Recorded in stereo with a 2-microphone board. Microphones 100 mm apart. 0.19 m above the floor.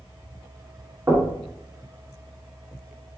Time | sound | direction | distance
1.1 | knocking | 35° right (ahead or behind) | 1.2 m